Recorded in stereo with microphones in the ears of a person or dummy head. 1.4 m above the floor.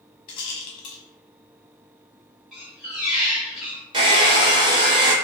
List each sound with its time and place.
0.3 s a rattle: 30° left (ahead or behind), 0.7 m
2.5 s a squeak: 5° right (ahead or behind), 1.0 m
3.9 s a hair dryer: 30° right (ahead or behind), 0.8 m